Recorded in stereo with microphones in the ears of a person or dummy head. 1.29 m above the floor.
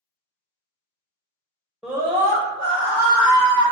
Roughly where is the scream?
Centre.